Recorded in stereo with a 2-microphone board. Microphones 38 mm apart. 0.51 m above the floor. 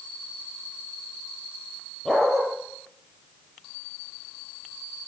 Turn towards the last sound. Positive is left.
turn(degrees=10)  # may be behind; listen again after turning